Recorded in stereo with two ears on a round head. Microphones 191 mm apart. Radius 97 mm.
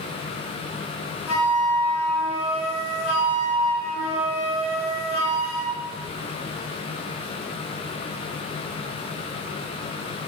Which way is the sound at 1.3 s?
70° left (ahead or behind).